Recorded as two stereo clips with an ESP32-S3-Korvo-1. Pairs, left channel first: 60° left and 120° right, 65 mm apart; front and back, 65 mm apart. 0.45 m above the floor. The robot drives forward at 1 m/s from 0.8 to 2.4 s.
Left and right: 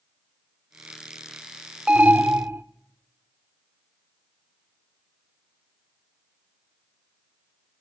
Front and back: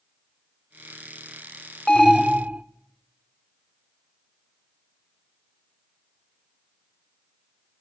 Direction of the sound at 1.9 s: 65° right.